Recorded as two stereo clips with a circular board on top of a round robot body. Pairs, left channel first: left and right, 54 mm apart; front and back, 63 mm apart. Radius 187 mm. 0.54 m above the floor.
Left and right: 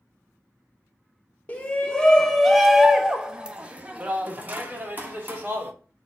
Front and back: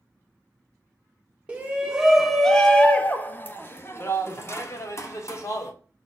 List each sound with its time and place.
1.5 s a shout: 130° left, 1.0 m; by 5.7 s 35° right, 2.0 m